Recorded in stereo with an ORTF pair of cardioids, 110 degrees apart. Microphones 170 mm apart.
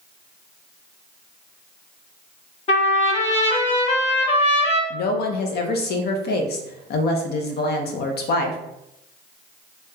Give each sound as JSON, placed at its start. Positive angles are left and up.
{"t": 2.7, "sound": "a trumpet", "azimuth_deg": 40, "distance_m": 0.9}
{"t": 4.9, "sound": "a woman speaking", "azimuth_deg": 70, "distance_m": 0.6}